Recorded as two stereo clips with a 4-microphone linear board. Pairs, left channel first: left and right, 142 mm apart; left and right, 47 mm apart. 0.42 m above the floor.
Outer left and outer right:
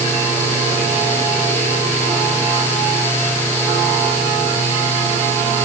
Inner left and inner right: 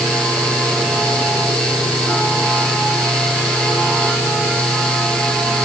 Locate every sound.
Only background noise.